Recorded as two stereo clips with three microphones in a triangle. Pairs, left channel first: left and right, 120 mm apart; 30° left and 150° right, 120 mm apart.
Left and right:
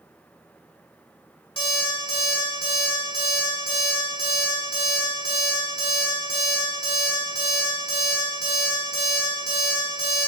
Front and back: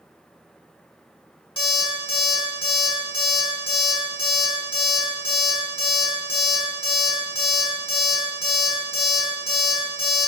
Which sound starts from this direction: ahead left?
An alarm clock, at 1.6 s.